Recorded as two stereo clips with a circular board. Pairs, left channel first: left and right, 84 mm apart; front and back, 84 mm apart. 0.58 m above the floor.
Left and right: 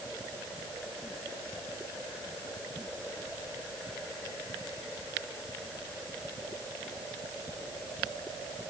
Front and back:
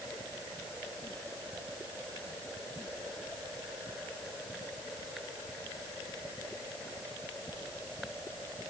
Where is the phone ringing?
No phone ringing in this recording.